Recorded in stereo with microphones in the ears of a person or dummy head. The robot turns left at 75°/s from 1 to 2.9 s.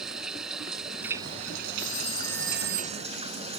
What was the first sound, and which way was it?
Running water, straight ahead.